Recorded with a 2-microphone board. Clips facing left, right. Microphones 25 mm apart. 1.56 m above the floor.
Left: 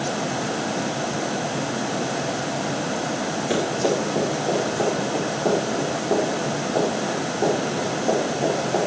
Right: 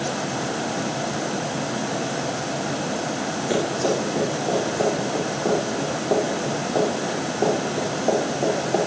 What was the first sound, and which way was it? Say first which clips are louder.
Running footsteps: even; 5° left (ahead or behind).